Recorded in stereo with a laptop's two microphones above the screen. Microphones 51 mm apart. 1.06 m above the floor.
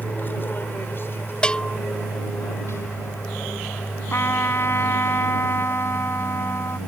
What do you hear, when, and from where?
0.0 s an aircraft: 40° left (ahead or behind); by 6.9 s 70° left (ahead or behind)
1.4 s a bell: 20° left (ahead or behind)
4.1 s a trumpet: 55° left (ahead or behind)